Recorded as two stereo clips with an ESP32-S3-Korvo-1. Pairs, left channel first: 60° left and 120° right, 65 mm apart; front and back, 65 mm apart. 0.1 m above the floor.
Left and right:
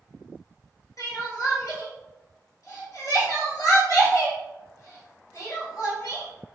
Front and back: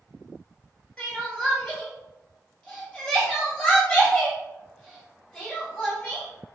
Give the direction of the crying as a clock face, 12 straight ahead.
10 o'clock.